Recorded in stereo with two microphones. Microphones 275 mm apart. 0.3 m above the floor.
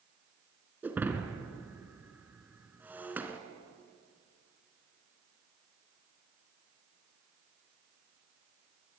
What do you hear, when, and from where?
0.8 s breaking glass: 5° right (ahead or behind), 1.9 m